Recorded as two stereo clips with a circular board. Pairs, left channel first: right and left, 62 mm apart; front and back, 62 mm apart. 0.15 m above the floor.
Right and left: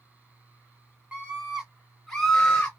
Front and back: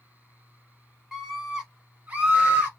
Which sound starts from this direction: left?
A scream, at 1.1 s.